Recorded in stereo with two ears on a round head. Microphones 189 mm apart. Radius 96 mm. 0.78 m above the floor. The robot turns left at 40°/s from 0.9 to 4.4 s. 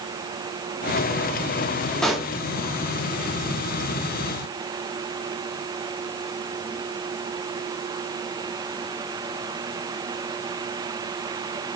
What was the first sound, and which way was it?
A pop, 5° left (ahead or behind).